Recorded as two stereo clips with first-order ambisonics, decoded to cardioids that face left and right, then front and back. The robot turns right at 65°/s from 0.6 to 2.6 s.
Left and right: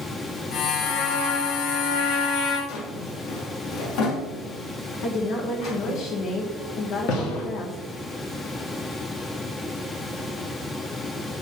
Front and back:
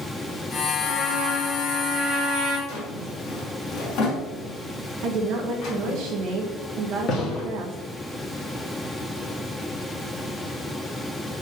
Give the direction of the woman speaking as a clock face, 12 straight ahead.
8 o'clock.